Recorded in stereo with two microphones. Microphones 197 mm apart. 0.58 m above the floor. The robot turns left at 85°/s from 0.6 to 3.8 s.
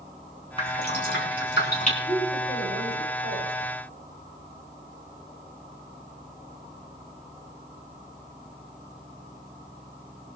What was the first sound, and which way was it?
Dripping, 30° left (ahead or behind).